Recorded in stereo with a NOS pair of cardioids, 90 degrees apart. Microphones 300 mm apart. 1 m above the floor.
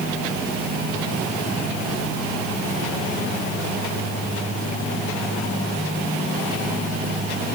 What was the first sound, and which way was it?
Only background noise.